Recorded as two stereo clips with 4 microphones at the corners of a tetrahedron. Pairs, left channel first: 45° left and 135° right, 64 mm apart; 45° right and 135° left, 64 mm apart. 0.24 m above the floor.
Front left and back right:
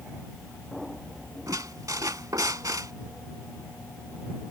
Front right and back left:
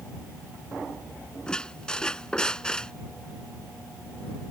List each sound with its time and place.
1.5 s a squeak: 120° right